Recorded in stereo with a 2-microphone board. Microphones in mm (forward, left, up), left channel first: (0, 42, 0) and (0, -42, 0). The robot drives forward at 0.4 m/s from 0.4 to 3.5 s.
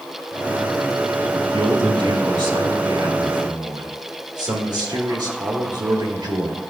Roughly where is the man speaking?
Right.